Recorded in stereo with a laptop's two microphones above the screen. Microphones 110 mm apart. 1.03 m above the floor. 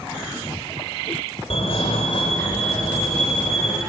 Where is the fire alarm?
65° left (ahead or behind), 2.5 m.